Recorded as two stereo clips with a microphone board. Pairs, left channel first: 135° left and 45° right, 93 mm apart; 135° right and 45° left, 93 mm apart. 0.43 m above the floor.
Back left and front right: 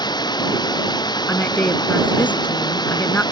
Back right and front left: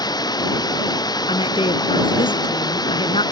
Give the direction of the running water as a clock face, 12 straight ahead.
6 o'clock.